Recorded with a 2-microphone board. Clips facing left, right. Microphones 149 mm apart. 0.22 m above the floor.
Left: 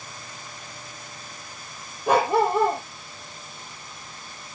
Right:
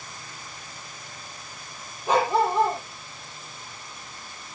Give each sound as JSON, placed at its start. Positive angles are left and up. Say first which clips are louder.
{"t": 2.1, "sound": "a dog barking", "louder": "left 2 dB", "side_deg": 60, "distance_m": 3.0}